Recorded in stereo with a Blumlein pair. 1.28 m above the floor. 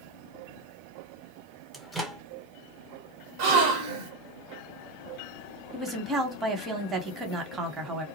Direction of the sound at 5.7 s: 15° right.